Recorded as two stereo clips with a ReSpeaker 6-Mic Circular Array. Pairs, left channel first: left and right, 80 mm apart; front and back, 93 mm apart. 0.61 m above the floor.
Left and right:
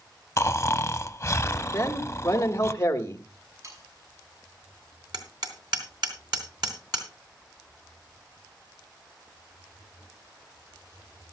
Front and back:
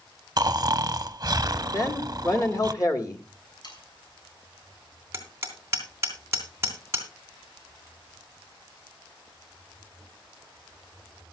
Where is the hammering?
120° right, 3 m.